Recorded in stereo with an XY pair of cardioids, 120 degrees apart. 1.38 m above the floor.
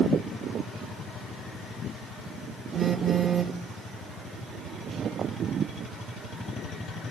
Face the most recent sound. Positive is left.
turn(degrees=-40)